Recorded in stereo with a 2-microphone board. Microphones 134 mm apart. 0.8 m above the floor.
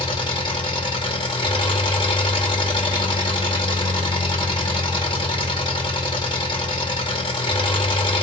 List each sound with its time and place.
0.0 s an engine running: 35° left (ahead or behind), 0.8 m